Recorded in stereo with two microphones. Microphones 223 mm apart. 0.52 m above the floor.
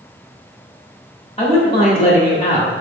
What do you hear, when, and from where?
1.4 s a man speaking: 25° left (ahead or behind), 0.8 m